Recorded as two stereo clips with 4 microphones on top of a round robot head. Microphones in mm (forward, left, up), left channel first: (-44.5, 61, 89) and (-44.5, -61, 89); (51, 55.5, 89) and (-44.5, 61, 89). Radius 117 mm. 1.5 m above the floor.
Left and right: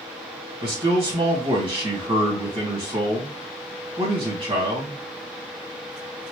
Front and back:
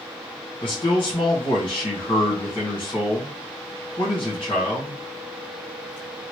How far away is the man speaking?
About 2.0 m.